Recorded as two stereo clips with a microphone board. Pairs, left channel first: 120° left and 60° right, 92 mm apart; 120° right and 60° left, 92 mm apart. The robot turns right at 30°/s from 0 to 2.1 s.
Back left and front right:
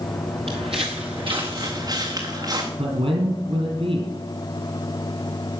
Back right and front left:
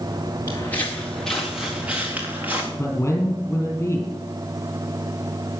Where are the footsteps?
60° right, 3 m; by 2.7 s 10° right, 4.5 m.